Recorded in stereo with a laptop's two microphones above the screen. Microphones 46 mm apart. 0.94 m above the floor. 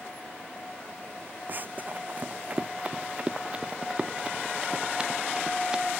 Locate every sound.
1.5 s running footsteps: 45° right (ahead or behind); by 5.9 s 15° right (ahead or behind)